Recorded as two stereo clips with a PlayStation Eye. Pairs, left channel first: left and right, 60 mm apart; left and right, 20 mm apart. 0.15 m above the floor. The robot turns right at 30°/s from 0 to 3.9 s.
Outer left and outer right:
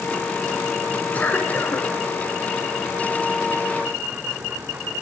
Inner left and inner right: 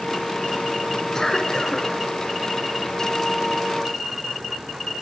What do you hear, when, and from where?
1.1 s a cough: 25° left (ahead or behind), 1.9 m; by 1.9 s 35° left (ahead or behind), 1.9 m